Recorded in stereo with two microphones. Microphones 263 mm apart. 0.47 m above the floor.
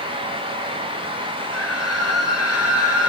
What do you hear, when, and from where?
1.5 s a scream: 75° left (ahead or behind), 9 m